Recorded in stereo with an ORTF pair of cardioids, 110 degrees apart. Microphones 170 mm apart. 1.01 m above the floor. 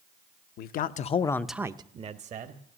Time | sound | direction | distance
0.6 | a man speaking | 70° left | 0.8 m